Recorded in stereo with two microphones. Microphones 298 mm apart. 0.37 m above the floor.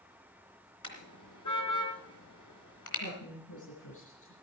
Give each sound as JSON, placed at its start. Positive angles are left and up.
{"t": 0.8, "sound": "a car horn", "side_deg": 75, "distance_m": 3.0}
{"t": 3.0, "sound": "a woman speaking", "side_deg": 70, "distance_m": 5.5}